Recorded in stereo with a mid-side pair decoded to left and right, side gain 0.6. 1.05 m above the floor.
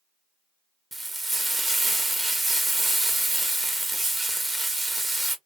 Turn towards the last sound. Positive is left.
turn(degrees=-5)